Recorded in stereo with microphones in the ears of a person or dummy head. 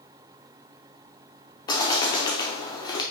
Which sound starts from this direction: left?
A bird, at 1.7 s.